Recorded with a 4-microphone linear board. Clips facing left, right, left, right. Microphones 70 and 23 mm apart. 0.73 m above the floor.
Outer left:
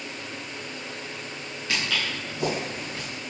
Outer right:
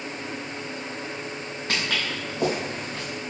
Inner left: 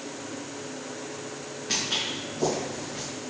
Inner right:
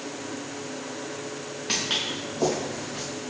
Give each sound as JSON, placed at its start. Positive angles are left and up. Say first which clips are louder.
{"t": 1.7, "sound": "footsteps", "louder": "outer right 1 dB, inner right 1 dB", "side_deg": -50, "distance_m": 4.0}